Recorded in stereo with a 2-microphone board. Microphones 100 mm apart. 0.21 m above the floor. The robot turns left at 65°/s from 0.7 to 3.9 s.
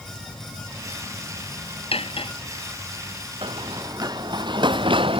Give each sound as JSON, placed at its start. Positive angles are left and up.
{"t": 1.9, "sound": "cutlery clinking", "side_deg": 75}
{"t": 3.4, "sound": "running footsteps", "side_deg": -60}